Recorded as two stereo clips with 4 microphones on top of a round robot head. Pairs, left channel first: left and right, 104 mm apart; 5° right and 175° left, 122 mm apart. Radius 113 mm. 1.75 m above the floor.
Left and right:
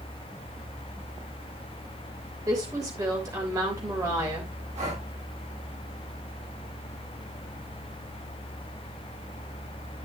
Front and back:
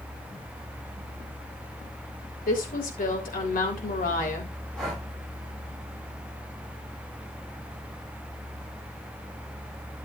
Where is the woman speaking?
25° right, 3 m.